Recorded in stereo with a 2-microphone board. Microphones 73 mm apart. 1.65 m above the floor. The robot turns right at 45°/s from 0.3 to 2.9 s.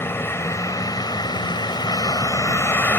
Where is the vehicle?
35° left; by 3.0 s 150° left.